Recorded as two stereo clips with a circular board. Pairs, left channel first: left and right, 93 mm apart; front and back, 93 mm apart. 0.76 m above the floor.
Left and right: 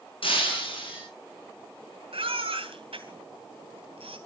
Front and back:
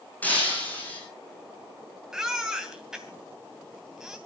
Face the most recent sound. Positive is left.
turn(degrees=-95)